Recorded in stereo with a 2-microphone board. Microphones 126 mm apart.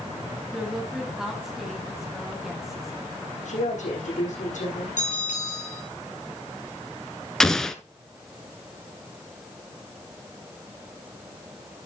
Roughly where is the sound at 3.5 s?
Left.